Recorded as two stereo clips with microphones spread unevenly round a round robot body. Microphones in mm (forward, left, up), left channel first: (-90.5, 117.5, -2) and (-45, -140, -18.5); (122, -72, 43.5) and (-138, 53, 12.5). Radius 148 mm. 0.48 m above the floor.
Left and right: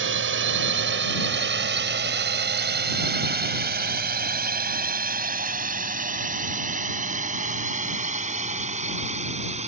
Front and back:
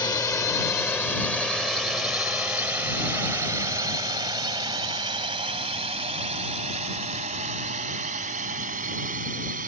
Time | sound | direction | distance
0.0 | a drone | 105° right | ?